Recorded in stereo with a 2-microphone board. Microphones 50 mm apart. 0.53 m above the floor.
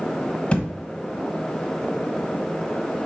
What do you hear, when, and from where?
0.5 s a thud: 30° left (ahead or behind), 1.3 m